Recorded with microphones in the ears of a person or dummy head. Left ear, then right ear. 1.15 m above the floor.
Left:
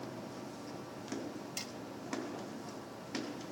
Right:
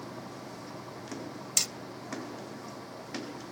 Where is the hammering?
40° right (ahead or behind).